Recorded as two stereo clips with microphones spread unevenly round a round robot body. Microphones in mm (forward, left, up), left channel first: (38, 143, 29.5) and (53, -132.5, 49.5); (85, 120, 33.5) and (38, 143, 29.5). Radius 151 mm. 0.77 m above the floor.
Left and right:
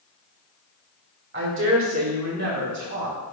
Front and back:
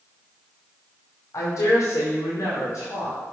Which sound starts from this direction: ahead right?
A woman speaking, at 1.3 s.